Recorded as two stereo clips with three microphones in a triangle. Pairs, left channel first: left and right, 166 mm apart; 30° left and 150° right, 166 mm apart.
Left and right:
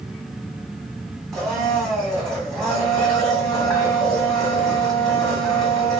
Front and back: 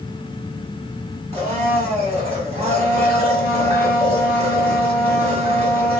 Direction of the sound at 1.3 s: 175° left.